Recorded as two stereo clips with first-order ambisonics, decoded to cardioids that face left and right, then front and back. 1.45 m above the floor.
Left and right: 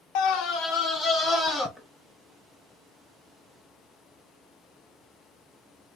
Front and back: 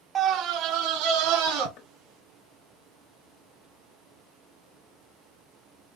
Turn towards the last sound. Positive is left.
turn(degrees=10)